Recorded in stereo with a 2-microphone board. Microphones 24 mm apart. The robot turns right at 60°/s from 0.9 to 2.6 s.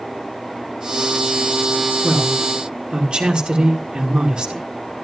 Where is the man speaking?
75° right, 2 m; by 4.7 s 40° right, 2 m.